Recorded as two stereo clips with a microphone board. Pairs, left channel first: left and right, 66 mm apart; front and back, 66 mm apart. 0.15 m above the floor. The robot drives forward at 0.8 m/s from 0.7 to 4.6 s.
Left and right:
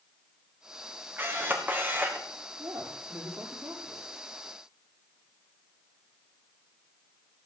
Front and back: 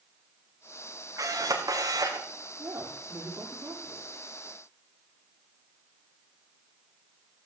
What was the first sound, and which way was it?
A camera shutter, 150° right.